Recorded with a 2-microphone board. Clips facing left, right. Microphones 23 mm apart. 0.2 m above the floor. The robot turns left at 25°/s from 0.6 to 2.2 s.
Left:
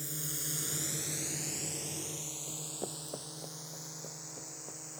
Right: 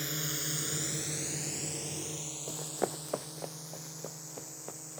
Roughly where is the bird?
No bird in this recording.